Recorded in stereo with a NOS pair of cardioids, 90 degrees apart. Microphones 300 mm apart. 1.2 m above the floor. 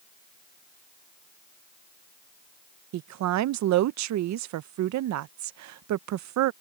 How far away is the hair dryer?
I don't hear a hair dryer.